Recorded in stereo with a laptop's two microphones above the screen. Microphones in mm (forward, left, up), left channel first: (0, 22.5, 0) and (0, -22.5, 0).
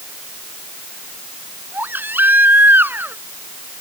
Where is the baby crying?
45° right (ahead or behind).